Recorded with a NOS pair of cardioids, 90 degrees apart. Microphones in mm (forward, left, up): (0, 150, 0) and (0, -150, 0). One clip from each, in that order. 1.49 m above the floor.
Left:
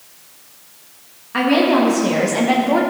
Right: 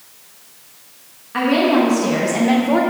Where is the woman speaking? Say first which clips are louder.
Left 1 dB; 20° left, 3 m; by 2.8 s straight ahead, 1.7 m.